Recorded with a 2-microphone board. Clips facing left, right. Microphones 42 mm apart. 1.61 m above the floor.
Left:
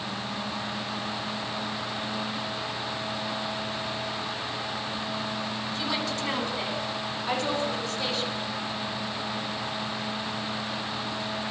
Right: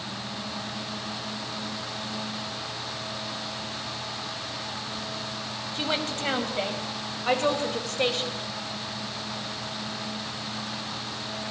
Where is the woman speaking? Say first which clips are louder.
Right 3 dB; 45° right (ahead or behind), 9.5 m; by 8.3 s 60° right (ahead or behind), 7.5 m.